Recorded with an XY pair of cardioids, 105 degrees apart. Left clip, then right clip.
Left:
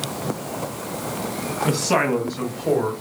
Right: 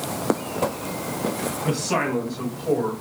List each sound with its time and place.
1.6 s a man speaking: 30° left, 0.8 m; by 2.9 s 60° left, 1.3 m